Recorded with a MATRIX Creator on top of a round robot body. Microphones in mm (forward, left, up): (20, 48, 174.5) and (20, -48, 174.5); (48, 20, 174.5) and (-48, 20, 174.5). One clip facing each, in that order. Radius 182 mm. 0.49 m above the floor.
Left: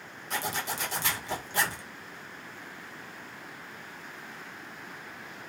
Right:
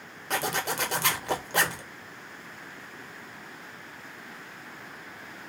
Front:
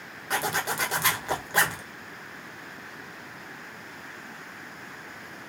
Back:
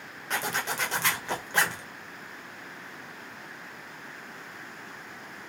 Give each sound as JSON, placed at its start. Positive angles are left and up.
{"t": 0.3, "sound": "a zipper", "azimuth_deg": -80, "distance_m": 1.0}